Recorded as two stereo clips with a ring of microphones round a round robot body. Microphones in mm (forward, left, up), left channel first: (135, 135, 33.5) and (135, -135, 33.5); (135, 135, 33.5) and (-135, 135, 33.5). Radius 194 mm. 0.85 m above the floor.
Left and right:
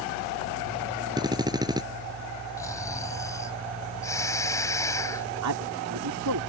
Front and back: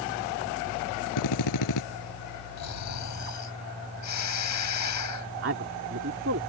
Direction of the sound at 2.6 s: 10° left.